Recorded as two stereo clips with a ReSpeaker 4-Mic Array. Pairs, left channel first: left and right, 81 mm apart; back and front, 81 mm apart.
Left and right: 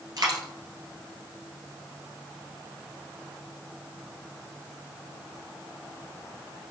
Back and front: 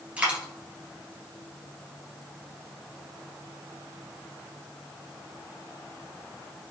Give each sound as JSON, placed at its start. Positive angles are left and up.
{"t": 0.2, "sound": "a dropped coin", "azimuth_deg": -75, "distance_m": 1.2}